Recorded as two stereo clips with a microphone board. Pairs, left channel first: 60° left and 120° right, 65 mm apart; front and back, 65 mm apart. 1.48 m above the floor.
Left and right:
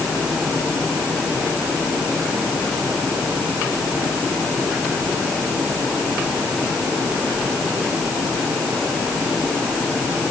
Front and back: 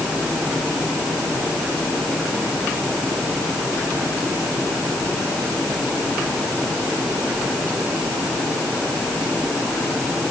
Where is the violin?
I don't hear a violin.